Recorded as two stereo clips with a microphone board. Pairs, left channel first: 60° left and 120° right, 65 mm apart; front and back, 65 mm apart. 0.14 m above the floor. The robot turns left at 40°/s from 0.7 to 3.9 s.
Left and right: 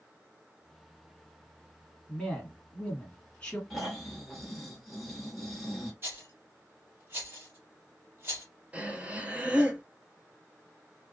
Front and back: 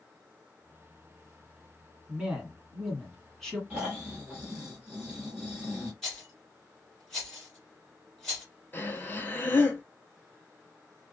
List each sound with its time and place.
2.1 s a man speaking: 130° left, 1.7 m; by 3.6 s 70° left, 1.7 m
3.7 s snoring: 160° left, 1.7 m; by 5.9 s 150° left, 1.7 m
6.0 s a rattle: 75° right, 2 m
8.7 s breathing: 55° right, 0.8 m